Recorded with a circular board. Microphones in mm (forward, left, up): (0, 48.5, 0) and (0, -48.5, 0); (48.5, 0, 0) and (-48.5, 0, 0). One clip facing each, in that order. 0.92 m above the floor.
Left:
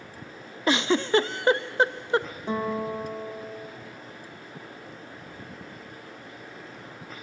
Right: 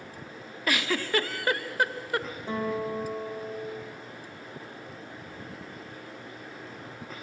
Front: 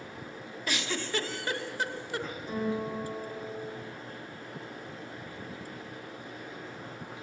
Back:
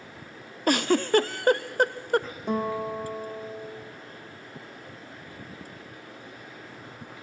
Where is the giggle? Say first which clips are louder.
Left 6 dB, back 12 dB; 150° left, 0.5 m.